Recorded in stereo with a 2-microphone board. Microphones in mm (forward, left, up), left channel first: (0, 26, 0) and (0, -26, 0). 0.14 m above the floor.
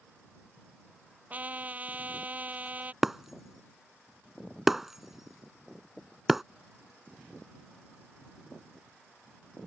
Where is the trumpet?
30° right (ahead or behind).